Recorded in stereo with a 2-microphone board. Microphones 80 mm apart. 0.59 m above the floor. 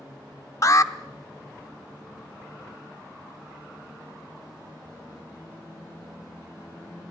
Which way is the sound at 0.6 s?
45° left (ahead or behind).